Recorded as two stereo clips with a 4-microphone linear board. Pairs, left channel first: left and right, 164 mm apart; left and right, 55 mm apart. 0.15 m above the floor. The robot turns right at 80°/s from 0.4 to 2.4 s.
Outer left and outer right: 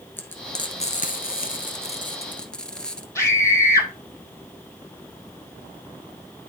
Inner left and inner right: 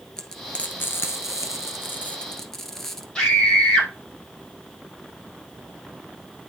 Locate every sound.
0.2 s frying: 15° left (ahead or behind), 1.5 m; by 3.0 s 5° left (ahead or behind), 1.5 m
3.1 s a scream: 15° left (ahead or behind), 5 m